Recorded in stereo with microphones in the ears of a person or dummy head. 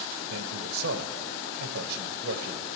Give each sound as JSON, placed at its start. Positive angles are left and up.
{"t": 0.3, "sound": "a man speaking", "side_deg": -70, "distance_m": 1.2}